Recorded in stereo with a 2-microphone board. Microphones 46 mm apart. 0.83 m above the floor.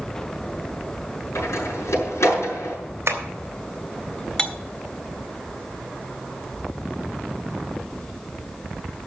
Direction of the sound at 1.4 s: 80° left.